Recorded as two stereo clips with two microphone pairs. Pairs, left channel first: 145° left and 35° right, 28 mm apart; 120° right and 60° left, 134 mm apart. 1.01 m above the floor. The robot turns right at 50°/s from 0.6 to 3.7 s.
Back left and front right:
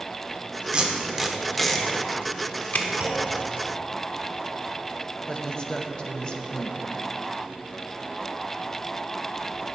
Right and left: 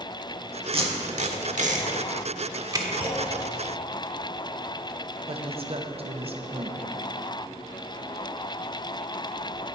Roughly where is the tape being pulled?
Ahead.